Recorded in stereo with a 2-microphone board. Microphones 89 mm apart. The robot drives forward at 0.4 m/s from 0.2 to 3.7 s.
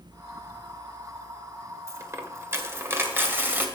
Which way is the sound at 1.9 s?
35° right (ahead or behind).